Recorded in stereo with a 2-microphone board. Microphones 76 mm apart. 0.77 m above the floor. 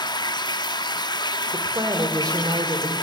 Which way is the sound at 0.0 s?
70° left (ahead or behind).